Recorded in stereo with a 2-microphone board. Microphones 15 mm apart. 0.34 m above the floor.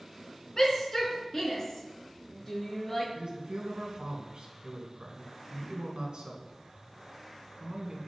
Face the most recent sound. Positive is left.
turn(degrees=-65)  # may be behind; listen again after turning